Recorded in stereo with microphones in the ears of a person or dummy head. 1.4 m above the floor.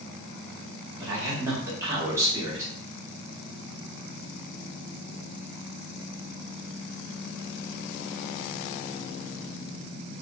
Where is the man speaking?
10° right (ahead or behind), 1.3 m.